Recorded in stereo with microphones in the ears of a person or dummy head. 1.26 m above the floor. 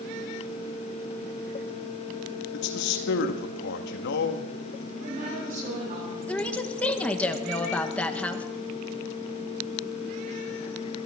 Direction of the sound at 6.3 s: 5° left (ahead or behind).